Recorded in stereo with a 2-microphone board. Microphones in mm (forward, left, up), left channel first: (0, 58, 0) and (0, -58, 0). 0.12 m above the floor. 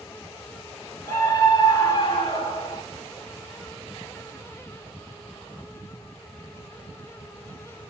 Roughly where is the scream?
Left.